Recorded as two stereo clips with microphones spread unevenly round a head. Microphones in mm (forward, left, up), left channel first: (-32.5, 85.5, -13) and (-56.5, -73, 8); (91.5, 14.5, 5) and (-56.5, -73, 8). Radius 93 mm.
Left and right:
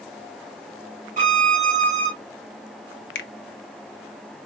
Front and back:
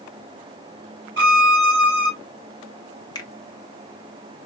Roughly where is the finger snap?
Left.